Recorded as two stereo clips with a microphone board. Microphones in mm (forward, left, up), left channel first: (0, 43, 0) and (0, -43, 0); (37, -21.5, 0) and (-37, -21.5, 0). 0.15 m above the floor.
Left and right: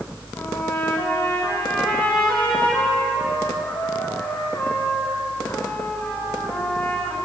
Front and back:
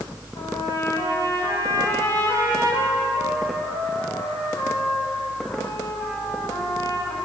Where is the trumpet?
30° left, 5.5 m.